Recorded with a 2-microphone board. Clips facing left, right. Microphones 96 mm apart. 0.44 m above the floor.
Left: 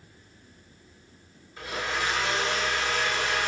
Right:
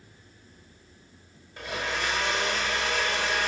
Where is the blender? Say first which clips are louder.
Left 1 dB; 70° right (ahead or behind), 3 m.